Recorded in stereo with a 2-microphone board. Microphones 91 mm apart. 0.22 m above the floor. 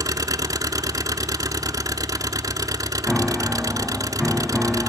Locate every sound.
0.0 s an engine running: 40° right (ahead or behind), 0.8 m
3.1 s a piano: centre (ahead or behind), 1.1 m